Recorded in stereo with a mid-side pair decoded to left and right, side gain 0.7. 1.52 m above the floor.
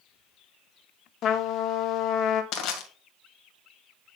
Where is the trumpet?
50° left, 1.4 m.